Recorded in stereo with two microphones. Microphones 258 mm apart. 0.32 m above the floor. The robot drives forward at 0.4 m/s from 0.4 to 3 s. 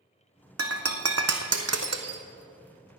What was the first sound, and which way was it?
Breaking glass, 60° right (ahead or behind).